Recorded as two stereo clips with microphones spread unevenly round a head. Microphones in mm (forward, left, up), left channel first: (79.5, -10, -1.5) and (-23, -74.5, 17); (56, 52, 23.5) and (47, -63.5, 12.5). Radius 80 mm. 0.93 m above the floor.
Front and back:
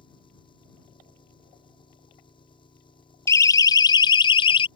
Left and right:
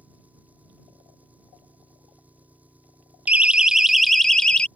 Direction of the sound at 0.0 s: 15° right.